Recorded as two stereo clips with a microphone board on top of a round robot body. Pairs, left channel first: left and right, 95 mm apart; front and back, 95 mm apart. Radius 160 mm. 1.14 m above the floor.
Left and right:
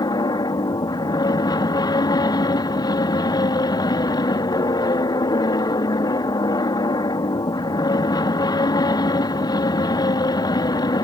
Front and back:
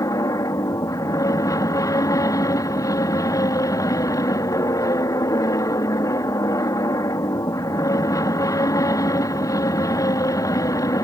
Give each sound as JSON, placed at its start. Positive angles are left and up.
{"t": 0.0, "sound": "an aircraft", "azimuth_deg": 50}